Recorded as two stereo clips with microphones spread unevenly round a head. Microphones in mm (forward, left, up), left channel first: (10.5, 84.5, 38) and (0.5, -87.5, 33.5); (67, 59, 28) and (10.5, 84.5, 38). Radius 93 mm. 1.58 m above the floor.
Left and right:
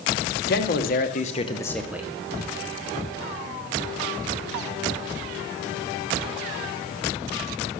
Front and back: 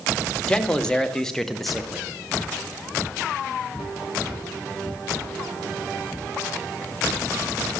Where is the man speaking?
55° left, 1.0 m; by 2.1 s 155° right, 0.5 m.